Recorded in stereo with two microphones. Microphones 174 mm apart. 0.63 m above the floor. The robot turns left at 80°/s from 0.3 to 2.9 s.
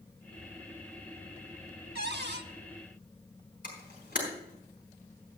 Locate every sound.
1.9 s a cupboard door: 70° right, 0.8 m; by 2.5 s 110° right, 0.8 m
3.6 s a camera shutter: 50° left (ahead or behind), 4.5 m